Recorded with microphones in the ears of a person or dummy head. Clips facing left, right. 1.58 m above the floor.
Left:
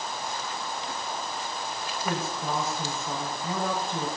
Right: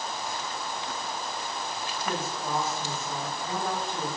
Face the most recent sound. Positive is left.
turn(degrees=80)